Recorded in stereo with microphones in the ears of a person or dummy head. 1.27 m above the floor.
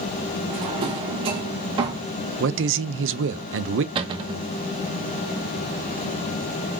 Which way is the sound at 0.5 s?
30° right (ahead or behind).